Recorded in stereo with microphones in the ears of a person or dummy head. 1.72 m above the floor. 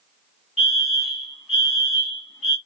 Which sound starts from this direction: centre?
A fire alarm, at 0.6 s.